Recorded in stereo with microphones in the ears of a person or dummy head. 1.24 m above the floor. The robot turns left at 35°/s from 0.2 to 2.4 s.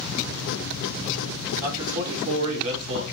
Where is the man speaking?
15° right (ahead or behind), 4 m; by 3.0 s 45° right (ahead or behind), 4 m.